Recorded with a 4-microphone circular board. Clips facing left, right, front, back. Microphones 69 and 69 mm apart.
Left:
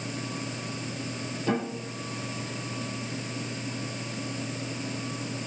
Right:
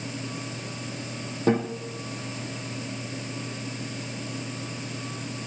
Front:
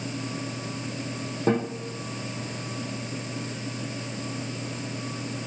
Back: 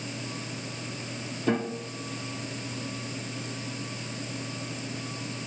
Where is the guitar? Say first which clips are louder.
Right 5 dB, front 3 dB; 45° right, 4 m.